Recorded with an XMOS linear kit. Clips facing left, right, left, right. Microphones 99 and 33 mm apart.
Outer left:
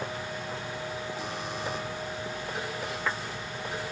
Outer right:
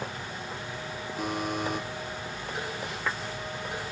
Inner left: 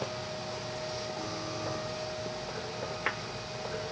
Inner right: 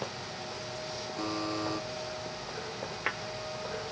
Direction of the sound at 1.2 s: 50° right (ahead or behind).